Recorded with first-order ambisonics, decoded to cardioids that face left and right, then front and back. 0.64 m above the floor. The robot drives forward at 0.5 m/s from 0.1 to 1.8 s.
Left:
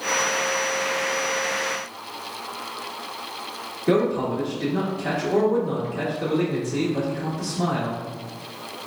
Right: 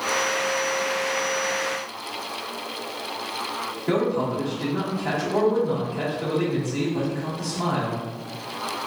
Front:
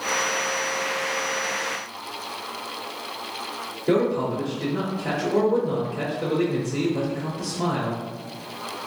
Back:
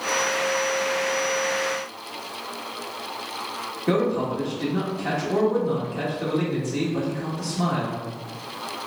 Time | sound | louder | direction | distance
3.9 | a man speaking | left 2 dB, front 1 dB | 150° left | 1.9 m